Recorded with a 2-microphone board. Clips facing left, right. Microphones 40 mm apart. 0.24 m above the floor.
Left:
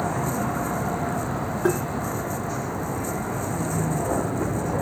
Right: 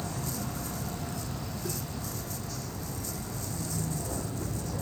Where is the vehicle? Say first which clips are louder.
Left 11 dB; 45° left (ahead or behind).